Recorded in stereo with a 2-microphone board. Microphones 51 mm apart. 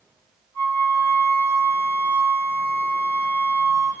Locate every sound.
0.5 s a flute: 75° left (ahead or behind), 5 m